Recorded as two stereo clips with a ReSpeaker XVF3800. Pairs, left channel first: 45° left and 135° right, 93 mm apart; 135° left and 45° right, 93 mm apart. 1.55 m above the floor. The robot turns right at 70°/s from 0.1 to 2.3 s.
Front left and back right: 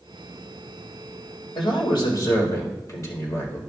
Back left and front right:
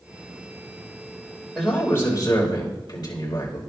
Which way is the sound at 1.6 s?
45° left.